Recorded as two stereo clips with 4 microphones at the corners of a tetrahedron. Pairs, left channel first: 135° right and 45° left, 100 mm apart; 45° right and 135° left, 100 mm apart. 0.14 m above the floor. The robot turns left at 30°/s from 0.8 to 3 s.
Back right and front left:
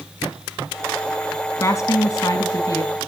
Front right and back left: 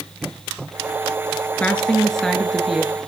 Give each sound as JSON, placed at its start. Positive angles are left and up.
{"t": 1.6, "sound": "a woman speaking", "azimuth_deg": -110, "distance_m": 1.2}